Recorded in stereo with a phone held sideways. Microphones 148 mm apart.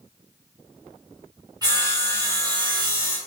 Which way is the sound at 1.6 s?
25° right (ahead or behind).